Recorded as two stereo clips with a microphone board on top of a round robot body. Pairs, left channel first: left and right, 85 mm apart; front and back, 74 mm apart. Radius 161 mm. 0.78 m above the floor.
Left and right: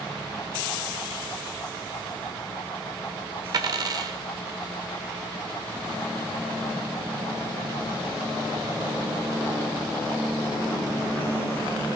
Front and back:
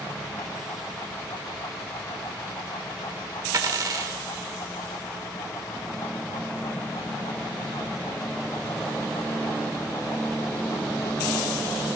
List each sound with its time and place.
3.5 s a dropped coin: 140° right, 0.9 m